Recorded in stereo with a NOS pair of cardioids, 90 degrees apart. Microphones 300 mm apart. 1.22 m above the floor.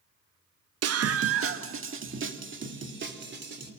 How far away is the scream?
About 1.2 m.